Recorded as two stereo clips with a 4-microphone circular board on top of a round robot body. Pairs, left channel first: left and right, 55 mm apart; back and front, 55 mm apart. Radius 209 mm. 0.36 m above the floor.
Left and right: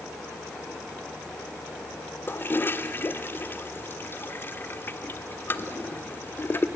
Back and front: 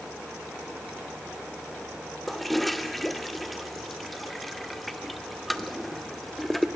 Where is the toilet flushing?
95° left, 1.1 m.